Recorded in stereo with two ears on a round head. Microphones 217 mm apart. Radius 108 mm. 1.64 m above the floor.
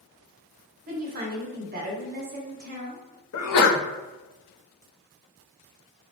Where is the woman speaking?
40° right (ahead or behind), 1.1 m.